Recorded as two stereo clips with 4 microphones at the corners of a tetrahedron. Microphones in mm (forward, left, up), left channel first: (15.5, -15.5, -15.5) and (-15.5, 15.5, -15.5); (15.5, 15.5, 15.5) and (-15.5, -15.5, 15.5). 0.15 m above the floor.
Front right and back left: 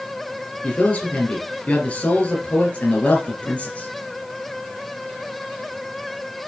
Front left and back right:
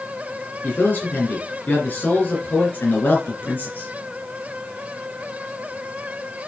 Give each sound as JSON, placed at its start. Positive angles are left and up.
{"t": 0.6, "sound": "a man speaking", "azimuth_deg": 10, "distance_m": 3.0}